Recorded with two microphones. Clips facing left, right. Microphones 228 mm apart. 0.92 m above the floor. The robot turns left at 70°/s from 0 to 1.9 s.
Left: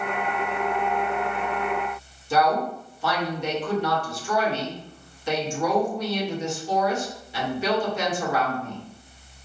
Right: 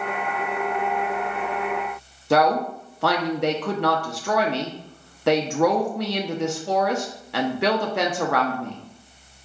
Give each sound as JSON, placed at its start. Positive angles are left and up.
{"t": 2.3, "sound": "a woman speaking", "side_deg": -70, "distance_m": 0.6}